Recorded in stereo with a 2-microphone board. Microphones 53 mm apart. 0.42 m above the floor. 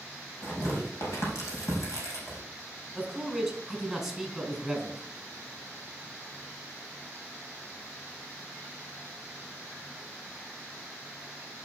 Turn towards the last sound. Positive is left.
turn(degrees=0)  # may be behind; listen again after turning